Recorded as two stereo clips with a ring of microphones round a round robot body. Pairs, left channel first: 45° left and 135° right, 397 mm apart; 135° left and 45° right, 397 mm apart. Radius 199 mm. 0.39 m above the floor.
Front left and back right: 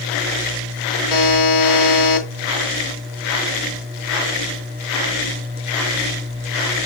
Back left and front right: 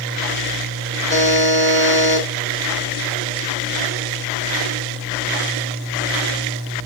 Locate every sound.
1.1 s a buzzer: 65° left, 3 m